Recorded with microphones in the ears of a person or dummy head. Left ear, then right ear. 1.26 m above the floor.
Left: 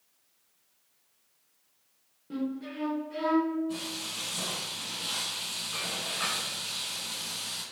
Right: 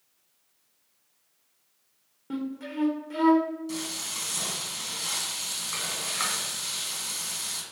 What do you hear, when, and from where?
2.3 s a flute: 35° right (ahead or behind), 0.5 m
3.7 s frying: 75° right (ahead or behind), 1.3 m